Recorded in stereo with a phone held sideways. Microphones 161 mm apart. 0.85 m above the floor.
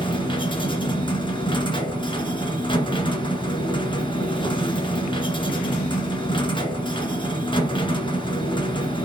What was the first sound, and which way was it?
A machine running, 30° left (ahead or behind).